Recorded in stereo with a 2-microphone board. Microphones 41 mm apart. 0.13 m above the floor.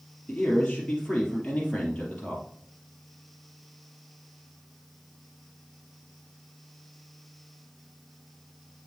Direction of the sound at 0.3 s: 25° left (ahead or behind).